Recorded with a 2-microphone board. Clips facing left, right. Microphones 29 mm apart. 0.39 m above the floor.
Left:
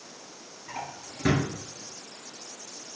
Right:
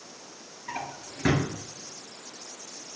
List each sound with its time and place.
0.7 s a drawer: 25° right (ahead or behind), 1.4 m